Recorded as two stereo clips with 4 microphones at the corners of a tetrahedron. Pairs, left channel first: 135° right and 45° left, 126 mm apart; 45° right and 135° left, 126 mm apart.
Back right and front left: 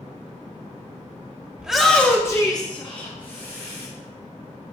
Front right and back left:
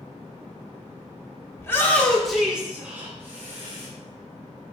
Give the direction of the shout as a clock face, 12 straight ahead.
1 o'clock.